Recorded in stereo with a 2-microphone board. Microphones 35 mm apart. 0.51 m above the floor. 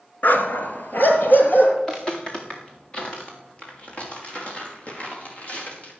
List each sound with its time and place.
0.2 s a dog barking: 60° left (ahead or behind), 1.4 m; by 1.7 s 65° left (ahead or behind), 3 m
1.8 s footsteps: 15° left (ahead or behind), 3 m; by 5.9 s 40° left (ahead or behind), 7.5 m